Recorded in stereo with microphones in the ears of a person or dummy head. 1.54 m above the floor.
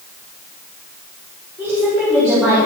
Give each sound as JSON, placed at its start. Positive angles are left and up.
{"t": 1.6, "sound": "a woman speaking", "side_deg": -5, "distance_m": 5.0}